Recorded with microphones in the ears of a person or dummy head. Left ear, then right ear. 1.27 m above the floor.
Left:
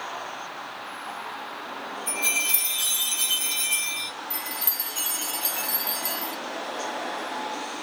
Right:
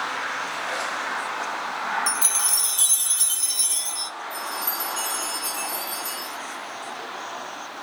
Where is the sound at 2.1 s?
25° right (ahead or behind), 1.4 m.